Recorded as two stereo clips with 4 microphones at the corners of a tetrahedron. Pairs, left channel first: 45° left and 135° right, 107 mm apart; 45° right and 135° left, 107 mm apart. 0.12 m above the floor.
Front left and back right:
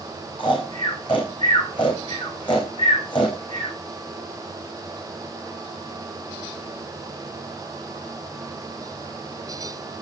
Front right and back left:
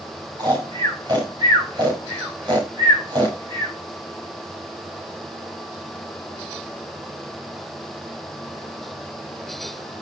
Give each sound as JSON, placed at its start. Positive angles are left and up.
{"t": 0.4, "sound": "snoring", "azimuth_deg": 85, "distance_m": 7.0}